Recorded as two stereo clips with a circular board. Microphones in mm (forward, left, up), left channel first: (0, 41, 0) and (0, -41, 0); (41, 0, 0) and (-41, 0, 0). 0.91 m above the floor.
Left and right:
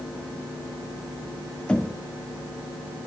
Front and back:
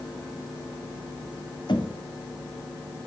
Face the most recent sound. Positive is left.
turn(degrees=15)